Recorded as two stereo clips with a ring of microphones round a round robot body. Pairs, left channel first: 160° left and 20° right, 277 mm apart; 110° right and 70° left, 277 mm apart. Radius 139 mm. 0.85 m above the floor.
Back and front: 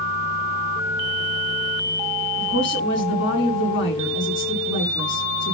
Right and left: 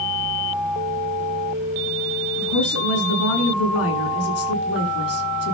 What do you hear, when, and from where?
2.4 s a woman speaking: 155° right, 7.5 m